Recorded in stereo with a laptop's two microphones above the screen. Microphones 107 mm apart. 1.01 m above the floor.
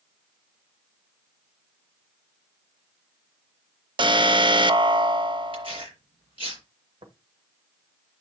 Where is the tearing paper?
55° right (ahead or behind), 4 m.